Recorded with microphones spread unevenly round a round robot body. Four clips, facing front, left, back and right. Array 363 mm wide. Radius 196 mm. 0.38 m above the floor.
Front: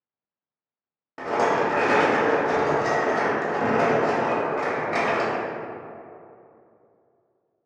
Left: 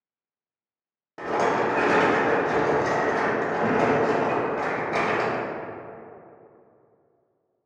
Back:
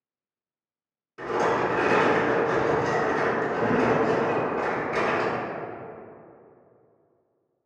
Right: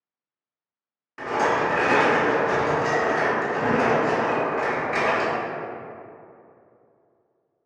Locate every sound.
1.2 s a rattle: 20° left, 1.5 m